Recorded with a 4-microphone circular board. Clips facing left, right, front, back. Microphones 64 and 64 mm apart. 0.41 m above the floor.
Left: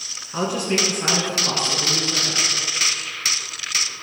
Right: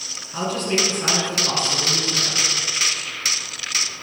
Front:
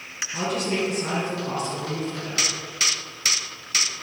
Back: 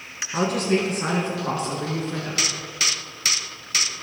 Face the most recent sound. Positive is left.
turn(degrees=-170)